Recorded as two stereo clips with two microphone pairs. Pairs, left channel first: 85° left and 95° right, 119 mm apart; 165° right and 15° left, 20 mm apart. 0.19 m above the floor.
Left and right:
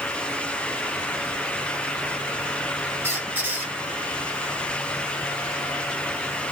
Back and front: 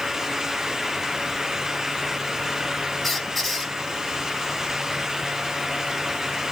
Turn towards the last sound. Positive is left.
turn(degrees=-85)